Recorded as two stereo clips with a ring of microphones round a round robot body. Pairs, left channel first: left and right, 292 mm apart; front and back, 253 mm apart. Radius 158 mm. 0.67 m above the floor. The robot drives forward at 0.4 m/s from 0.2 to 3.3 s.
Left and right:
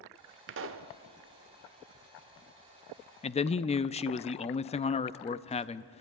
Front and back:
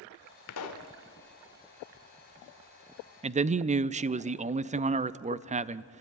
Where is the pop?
40° right, 0.9 m; by 0.9 s 45° right, 0.8 m.